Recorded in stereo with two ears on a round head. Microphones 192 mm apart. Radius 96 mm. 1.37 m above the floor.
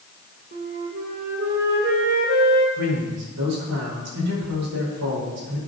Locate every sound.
0.5 s a flute: 50° right (ahead or behind), 2 m
2.8 s a man speaking: 90° right, 5 m